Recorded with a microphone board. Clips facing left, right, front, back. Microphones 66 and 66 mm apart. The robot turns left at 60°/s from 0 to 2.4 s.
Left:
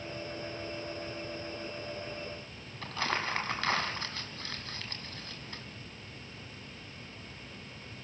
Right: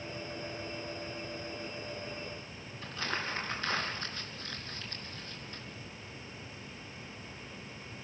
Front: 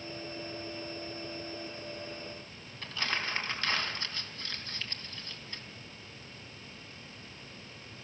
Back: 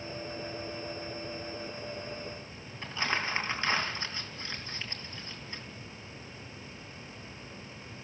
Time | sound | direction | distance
2.8 | crumpling | 110° left | 2.5 m